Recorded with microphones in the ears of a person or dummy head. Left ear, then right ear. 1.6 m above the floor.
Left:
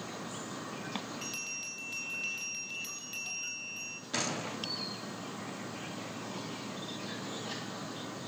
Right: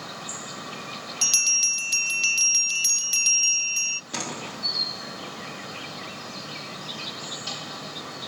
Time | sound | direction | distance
0.0 | an insect | 75° right (ahead or behind) | 1.4 m
1.2 | a bell | 60° right (ahead or behind) | 0.7 m
4.1 | a door slam | 20° right (ahead or behind) | 3 m